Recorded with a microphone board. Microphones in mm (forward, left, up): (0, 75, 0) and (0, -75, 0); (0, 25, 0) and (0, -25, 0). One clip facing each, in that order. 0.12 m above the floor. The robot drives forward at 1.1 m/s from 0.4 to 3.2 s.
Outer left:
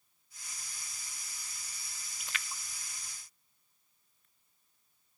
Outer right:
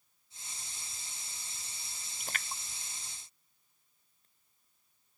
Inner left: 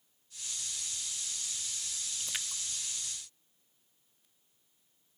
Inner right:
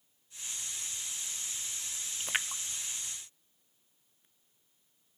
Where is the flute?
No flute in this recording.